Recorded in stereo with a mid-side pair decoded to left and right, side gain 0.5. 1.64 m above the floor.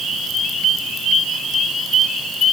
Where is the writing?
I don't hear writing.